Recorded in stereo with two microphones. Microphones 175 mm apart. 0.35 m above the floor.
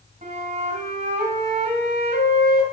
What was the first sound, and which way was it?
A flute, 50° right (ahead or behind).